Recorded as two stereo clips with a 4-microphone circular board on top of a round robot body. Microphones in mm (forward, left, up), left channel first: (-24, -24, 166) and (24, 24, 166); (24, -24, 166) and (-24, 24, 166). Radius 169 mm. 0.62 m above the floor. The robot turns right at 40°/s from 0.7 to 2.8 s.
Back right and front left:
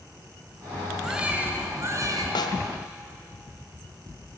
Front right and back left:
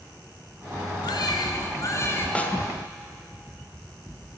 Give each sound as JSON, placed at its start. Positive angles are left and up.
{"t": 1.0, "sound": "a baby crying", "azimuth_deg": -35, "distance_m": 3.5}
{"t": 2.4, "sound": "a snare drum", "azimuth_deg": -120, "distance_m": 1.6}